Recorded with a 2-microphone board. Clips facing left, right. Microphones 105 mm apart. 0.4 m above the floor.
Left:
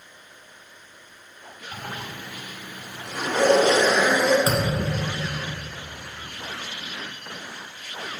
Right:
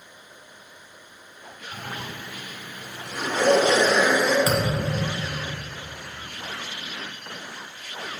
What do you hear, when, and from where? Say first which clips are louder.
1.7 s a zipper: even; 50° left (ahead or behind), 1.5 m
4.5 s a thud: even; 30° left (ahead or behind), 1.5 m